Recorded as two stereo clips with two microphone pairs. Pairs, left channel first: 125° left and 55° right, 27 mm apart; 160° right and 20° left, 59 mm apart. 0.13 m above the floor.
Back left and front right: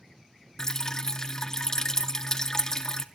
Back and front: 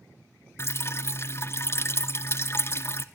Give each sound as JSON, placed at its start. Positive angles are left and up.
{"t": 0.6, "sound": "dripping", "azimuth_deg": -175, "distance_m": 0.8}